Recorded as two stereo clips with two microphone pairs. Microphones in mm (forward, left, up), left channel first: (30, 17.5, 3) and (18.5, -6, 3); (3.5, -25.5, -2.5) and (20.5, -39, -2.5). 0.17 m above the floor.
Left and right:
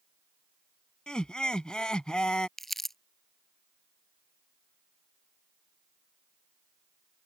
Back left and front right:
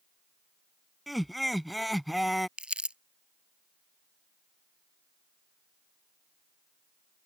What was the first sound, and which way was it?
Laughter, 45° left.